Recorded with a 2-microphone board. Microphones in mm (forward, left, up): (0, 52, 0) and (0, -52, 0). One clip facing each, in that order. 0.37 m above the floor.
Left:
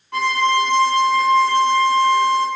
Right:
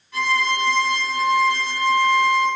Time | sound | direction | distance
0.1 | a violin | 60° left (ahead or behind) | 4 m